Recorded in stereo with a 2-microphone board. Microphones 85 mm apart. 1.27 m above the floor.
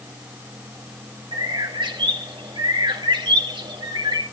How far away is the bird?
About 2 m.